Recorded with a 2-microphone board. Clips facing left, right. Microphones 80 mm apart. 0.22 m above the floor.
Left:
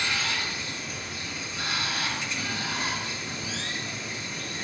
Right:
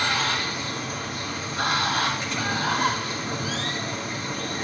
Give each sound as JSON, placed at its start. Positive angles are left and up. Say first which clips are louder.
{"t": 0.0, "sound": "running water", "louder": "right 5 dB", "side_deg": -50, "distance_m": 1.4}